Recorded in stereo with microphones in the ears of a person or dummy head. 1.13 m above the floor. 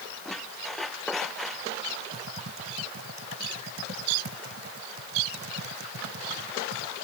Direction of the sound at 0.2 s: 5° left (ahead or behind).